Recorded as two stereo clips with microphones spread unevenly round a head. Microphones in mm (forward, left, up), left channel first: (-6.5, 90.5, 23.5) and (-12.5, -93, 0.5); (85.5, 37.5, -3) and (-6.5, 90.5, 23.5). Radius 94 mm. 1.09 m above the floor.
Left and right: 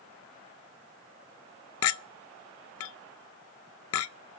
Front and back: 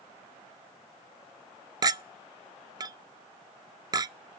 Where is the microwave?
No microwave in this recording.